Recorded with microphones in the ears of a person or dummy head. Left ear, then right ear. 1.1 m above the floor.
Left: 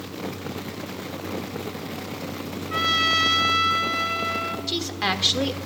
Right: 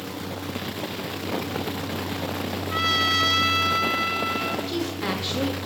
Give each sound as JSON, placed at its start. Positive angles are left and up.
{"t": 2.7, "sound": "a trumpet", "side_deg": 5, "distance_m": 1.1}
{"t": 4.7, "sound": "a woman speaking", "side_deg": 40, "distance_m": 1.9}